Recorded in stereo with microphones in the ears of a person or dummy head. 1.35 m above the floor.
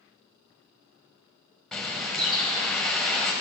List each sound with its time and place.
1.7 s a bird: centre (ahead or behind), 1.1 m